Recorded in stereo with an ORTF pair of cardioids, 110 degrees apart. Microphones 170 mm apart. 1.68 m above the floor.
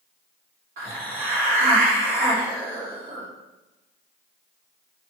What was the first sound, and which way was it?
A hiss, 65° right.